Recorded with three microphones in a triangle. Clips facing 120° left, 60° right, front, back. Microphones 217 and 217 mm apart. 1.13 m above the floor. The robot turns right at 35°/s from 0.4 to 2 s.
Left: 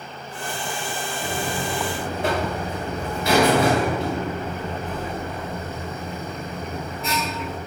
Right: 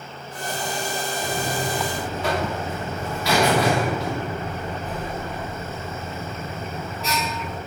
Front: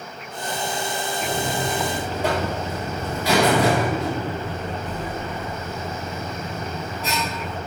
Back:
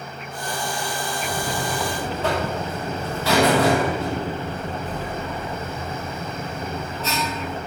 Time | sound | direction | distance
1.2 | a buzzer | 50° left | 3 m